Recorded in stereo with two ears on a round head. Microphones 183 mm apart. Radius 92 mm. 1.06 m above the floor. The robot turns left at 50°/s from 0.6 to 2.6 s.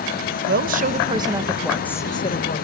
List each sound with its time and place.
0.5 s a woman speaking: 125° right, 1.1 m; by 2.6 s 135° left, 1.1 m